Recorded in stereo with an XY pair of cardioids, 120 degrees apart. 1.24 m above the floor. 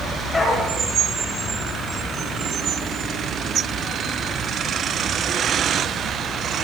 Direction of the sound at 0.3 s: 15° left.